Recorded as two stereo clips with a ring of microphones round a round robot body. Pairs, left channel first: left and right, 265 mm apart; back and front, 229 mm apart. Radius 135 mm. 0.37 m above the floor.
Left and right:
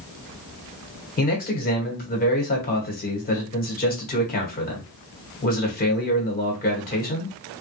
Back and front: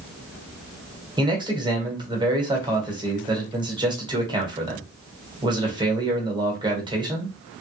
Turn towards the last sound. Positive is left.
turn(degrees=60)